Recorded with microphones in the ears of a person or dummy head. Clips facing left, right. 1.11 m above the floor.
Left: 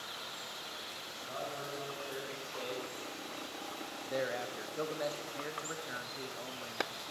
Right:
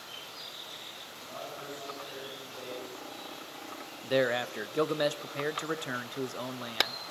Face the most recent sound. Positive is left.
turn(degrees=-70)  # may be behind; listen again after turning